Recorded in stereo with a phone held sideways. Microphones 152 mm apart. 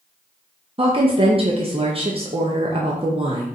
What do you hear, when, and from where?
0.8 s a woman speaking: 40° right (ahead or behind), 0.5 m